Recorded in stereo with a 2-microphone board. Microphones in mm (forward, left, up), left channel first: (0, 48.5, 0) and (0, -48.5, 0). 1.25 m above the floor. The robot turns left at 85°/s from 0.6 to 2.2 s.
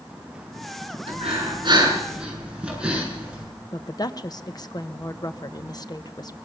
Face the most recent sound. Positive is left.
turn(degrees=45)  # may be behind; listen again after turning